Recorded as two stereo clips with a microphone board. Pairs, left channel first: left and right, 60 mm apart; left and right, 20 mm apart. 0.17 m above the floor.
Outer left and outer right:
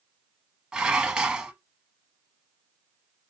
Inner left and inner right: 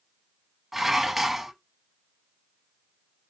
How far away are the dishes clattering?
About 0.7 m.